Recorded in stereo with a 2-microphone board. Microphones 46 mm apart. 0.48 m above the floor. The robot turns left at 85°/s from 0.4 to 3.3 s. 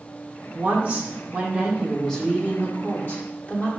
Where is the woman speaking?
65° right, 0.9 m; by 3.7 s 60° left, 0.9 m.